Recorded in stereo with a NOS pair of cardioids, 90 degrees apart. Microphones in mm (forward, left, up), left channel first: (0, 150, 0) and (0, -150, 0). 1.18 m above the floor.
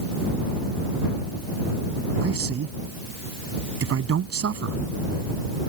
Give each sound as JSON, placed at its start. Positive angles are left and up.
{"t": 2.2, "sound": "a man speaking", "azimuth_deg": -50}